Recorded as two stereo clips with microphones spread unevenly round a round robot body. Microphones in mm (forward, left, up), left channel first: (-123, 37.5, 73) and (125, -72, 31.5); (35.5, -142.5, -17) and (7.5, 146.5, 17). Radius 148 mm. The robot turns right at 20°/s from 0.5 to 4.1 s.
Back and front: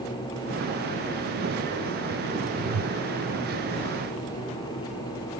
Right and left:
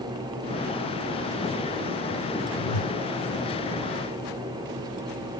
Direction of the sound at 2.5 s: 85° right.